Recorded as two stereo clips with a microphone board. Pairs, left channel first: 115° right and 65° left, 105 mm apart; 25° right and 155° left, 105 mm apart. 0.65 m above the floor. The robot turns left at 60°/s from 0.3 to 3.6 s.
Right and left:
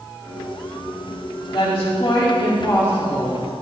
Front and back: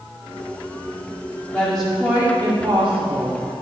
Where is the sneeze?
I don't hear a sneeze.